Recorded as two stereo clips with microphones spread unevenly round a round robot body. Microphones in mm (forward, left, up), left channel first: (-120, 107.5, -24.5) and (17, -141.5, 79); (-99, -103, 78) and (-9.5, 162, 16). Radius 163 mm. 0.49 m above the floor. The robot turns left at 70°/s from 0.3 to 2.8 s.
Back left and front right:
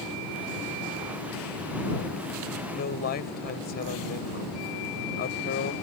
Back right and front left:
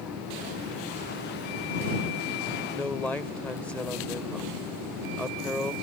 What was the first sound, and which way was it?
A man speaking, 165° left.